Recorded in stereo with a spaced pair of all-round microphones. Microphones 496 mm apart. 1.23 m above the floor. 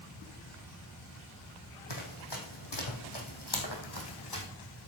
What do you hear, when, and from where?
1.9 s running footsteps: 60° left (ahead or behind), 2.5 m; by 4.5 s 45° left (ahead or behind), 2.5 m